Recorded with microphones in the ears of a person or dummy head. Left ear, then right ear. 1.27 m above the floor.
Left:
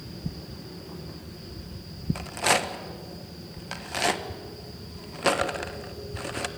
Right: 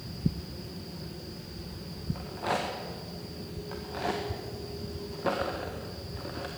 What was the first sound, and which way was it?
A rattle, 60° left (ahead or behind).